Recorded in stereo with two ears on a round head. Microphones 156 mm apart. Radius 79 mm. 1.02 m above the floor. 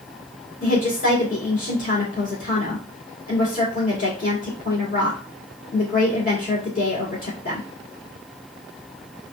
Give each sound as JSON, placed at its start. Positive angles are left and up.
{"t": 0.6, "sound": "a woman speaking", "side_deg": 50, "distance_m": 2.0}